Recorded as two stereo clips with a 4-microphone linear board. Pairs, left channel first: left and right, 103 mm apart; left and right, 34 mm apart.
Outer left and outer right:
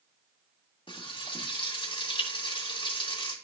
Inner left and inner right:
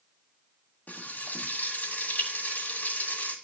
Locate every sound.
0.9 s frying: 55° left (ahead or behind), 2.5 m